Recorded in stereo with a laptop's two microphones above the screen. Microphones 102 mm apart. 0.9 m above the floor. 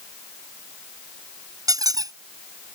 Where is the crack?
No crack in this recording.